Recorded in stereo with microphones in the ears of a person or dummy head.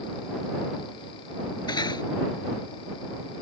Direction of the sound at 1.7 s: 25° left (ahead or behind).